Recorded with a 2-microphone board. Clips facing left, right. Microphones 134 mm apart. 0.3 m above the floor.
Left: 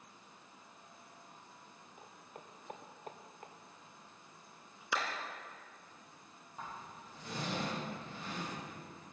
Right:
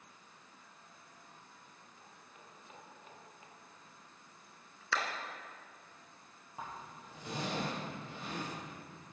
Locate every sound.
2.0 s footsteps: 65° left (ahead or behind), 3 m; by 3.5 s 55° left (ahead or behind), 1.7 m
4.9 s a clap: 15° left (ahead or behind), 2.5 m
6.6 s a zipper: 20° right (ahead or behind), 8.5 m